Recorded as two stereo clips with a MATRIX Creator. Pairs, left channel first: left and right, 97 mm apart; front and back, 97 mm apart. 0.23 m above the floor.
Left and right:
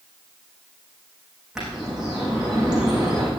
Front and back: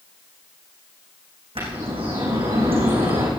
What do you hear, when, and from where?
1.6 s a bird: 175° right, 7.5 m